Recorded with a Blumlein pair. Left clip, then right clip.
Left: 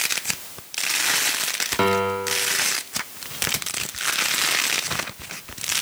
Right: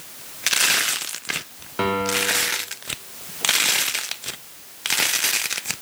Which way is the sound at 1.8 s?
10° left.